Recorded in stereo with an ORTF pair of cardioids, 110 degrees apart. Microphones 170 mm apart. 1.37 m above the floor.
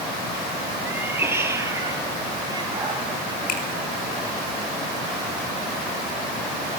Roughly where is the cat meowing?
Ahead.